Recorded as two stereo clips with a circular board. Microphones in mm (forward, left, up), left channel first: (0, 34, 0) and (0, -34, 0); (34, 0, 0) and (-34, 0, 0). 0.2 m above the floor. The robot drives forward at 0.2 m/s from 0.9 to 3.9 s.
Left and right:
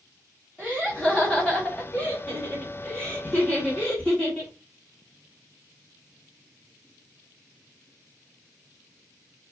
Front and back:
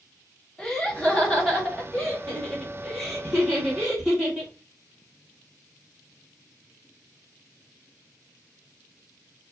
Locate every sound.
0.6 s laughter: 50° left, 1.7 m; by 4.5 s 110° left, 1.6 m